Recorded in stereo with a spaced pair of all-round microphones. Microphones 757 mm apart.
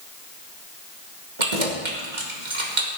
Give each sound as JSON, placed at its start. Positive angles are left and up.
{"t": 1.4, "sound": "keys jangling", "side_deg": -75, "distance_m": 2.0}